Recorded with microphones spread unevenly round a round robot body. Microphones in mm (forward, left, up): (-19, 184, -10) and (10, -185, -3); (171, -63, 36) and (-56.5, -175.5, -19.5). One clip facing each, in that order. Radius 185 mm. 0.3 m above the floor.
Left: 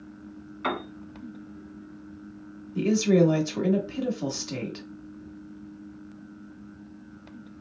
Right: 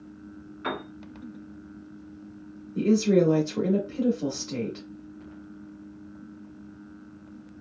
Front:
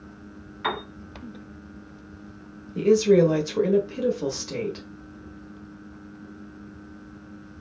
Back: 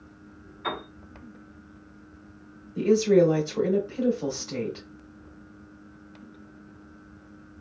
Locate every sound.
0.6 s a piano: 25° left, 1.1 m
2.8 s a woman speaking: 65° left, 1.0 m